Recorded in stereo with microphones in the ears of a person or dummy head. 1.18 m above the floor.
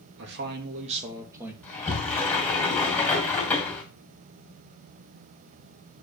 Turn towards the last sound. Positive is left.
turn(degrees=10)  # may be behind; listen again after turning